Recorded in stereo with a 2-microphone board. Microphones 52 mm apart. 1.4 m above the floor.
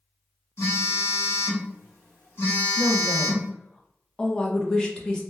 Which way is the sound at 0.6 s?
50° left (ahead or behind).